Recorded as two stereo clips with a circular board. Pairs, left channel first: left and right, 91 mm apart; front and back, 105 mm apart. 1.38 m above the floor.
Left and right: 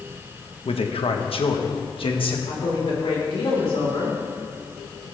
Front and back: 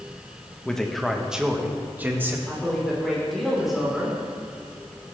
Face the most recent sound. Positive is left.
turn(degrees=90)